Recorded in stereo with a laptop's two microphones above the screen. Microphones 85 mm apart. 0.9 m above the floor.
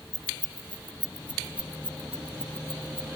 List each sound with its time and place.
0.1 s keys jangling: 10° left (ahead or behind); by 3.0 s 25° left (ahead or behind)